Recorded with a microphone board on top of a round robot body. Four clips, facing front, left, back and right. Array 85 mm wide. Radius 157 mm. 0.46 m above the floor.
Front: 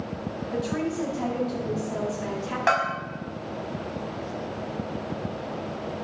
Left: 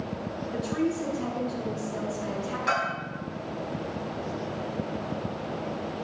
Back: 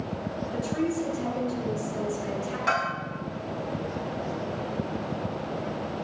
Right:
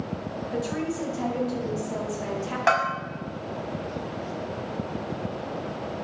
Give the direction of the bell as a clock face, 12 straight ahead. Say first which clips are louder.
Right 6 dB, front 4 dB; 2 o'clock.